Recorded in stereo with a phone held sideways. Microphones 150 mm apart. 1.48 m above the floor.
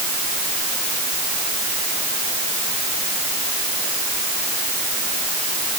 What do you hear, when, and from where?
Only background noise.